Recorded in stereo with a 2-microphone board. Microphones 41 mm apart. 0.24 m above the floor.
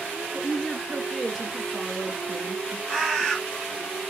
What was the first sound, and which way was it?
A woman speaking, 5° left (ahead or behind).